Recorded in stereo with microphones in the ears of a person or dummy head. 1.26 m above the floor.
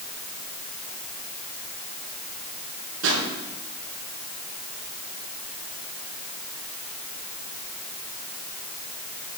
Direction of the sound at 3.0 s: 70° right (ahead or behind).